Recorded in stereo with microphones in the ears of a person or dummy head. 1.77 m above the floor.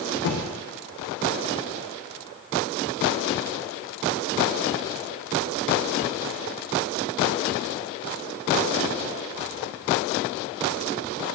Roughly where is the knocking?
Left.